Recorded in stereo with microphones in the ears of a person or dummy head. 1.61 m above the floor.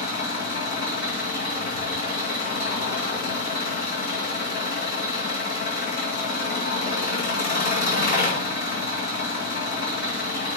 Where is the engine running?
50° left (ahead or behind), 2 m.